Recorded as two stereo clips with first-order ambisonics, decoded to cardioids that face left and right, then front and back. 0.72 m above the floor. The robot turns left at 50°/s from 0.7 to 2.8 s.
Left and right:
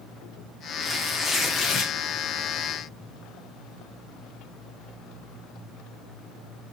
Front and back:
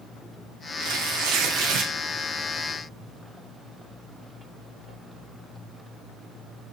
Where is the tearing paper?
170° right, 0.7 m; by 1.9 s 135° left, 0.7 m.